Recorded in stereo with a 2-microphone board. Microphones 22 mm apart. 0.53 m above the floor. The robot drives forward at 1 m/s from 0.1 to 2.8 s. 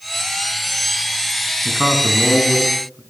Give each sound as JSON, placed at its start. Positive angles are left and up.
{"t": 1.6, "sound": "a man speaking", "side_deg": -70, "distance_m": 5.5}